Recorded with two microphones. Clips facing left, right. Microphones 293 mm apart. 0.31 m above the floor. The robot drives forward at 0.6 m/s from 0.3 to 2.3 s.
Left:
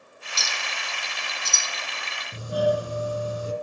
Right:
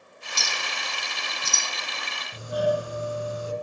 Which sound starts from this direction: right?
A clink, at 0.4 s.